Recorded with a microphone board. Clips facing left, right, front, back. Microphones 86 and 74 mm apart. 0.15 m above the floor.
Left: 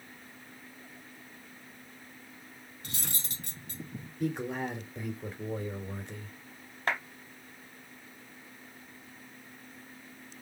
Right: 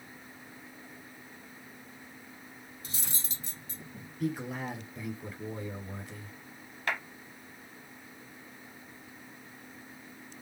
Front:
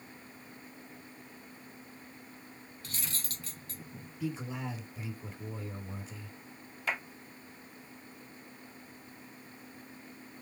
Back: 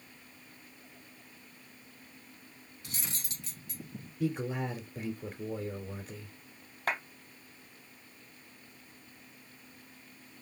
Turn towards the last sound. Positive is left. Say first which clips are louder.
# left 2 dB, back 2 dB
turn(degrees=140)